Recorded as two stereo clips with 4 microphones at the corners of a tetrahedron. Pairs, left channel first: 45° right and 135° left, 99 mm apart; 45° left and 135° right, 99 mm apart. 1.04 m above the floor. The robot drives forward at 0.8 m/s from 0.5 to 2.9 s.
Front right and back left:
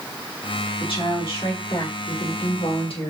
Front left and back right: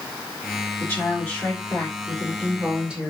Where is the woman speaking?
25° right, 2.5 m; by 3.1 s 55° right, 1.3 m.